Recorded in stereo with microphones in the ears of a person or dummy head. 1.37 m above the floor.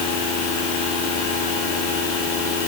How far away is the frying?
No frying in this recording.